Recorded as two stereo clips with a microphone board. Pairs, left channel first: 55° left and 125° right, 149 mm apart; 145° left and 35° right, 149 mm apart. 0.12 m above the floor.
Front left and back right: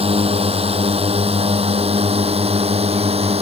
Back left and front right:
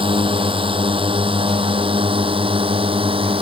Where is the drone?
85° right.